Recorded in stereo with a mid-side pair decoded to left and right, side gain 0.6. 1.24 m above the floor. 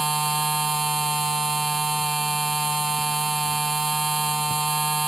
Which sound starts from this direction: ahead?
A machine running, at 0.0 s.